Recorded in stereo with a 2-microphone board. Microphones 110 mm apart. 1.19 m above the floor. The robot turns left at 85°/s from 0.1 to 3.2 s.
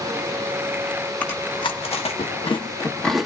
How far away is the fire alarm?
No fire alarm in this recording.